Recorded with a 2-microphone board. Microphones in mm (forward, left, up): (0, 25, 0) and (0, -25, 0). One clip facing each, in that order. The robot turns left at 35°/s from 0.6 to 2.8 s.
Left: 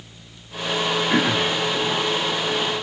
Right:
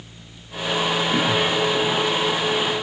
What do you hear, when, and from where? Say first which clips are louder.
1.1 s throat clearing: left 1 dB; 65° left (ahead or behind), 3 m; by 1.6 s 80° left, 3 m